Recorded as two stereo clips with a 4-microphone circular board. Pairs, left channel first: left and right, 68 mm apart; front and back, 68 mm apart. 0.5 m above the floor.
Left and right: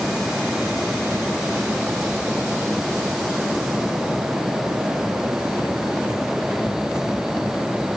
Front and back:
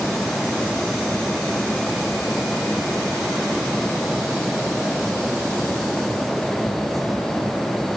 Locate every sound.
Only background noise.